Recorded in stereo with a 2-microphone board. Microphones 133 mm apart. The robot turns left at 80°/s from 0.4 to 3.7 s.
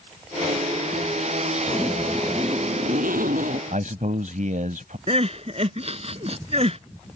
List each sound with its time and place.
1.7 s a zipper: 35° left; by 3.6 s 120° right
3.7 s a man speaking: 65° right (ahead or behind)
5.1 s crying: 50° right (ahead or behind)